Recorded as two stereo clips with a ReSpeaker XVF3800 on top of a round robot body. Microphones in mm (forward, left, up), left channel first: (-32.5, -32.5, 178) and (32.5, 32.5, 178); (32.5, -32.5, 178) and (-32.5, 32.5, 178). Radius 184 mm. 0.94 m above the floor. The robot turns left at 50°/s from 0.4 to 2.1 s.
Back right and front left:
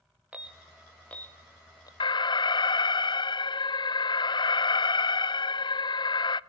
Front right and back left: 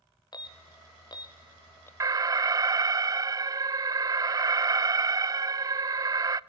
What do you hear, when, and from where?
0.3 s an alarm: 25° right, 1.3 m; by 1.9 s 100° right, 1.3 m
2.0 s an alarm: 170° right, 0.5 m; by 6.4 s 175° right, 0.5 m